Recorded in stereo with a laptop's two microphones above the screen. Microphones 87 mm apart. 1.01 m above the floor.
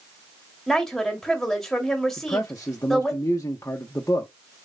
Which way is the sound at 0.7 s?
5° left (ahead or behind).